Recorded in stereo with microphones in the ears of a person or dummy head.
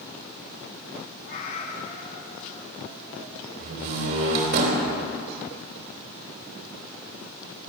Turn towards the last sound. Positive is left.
turn(degrees=-60)  # may be behind; listen again after turning